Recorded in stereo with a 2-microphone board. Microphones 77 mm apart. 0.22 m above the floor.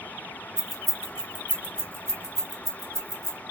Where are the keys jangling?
5° left (ahead or behind), 1.2 m; by 3.4 s 55° right (ahead or behind), 1.2 m.